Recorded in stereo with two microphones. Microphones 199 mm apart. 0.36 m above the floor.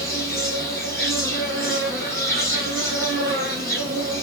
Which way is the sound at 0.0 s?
15° left (ahead or behind).